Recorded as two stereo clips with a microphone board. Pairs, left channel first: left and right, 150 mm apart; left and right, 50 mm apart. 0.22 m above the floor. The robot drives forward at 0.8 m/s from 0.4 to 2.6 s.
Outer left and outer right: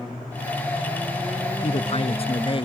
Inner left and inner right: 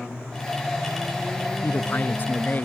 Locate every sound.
1.6 s a man speaking: 45° left (ahead or behind); by 2.7 s 35° left (ahead or behind)